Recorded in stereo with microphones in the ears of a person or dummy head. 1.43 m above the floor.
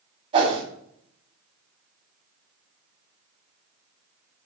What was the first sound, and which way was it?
A whoosh, 30° right (ahead or behind).